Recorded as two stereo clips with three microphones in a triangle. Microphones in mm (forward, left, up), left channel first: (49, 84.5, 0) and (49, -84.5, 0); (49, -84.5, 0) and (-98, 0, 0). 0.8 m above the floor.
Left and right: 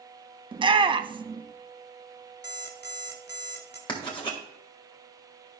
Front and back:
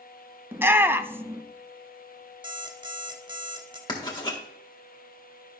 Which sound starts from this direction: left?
An alarm clock, at 2.4 s.